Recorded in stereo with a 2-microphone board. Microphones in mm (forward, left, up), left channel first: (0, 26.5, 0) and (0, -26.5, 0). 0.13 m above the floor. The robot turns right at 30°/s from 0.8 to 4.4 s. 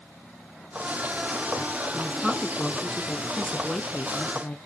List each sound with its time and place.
1.9 s a woman speaking: 5° right (ahead or behind), 1.1 m; by 4.6 s 20° left (ahead or behind), 1.1 m